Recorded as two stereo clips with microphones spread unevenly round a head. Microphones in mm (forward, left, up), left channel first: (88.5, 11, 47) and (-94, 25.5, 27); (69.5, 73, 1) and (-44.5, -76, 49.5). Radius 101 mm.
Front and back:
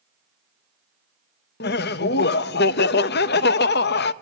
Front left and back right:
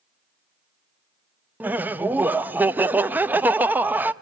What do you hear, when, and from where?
1.6 s laughter: 45° right, 0.7 m